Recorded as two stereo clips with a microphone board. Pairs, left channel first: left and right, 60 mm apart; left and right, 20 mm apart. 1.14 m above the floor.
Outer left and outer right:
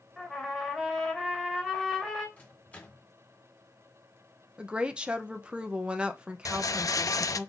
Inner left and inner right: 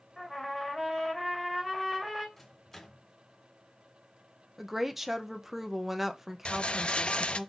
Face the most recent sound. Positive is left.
turn(degrees=65)  # may be behind; listen again after turning